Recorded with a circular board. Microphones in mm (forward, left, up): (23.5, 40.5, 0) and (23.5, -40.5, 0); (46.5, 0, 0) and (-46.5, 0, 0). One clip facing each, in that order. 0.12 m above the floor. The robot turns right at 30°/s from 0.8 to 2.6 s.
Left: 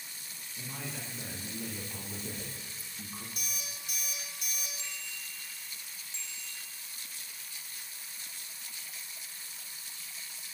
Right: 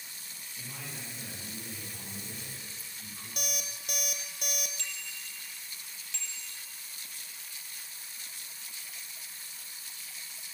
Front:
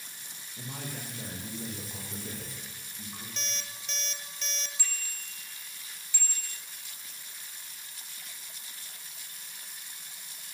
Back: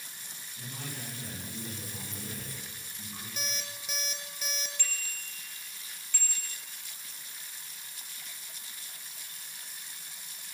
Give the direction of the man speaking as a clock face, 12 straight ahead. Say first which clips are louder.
Left 3 dB, front 2 dB; 12 o'clock.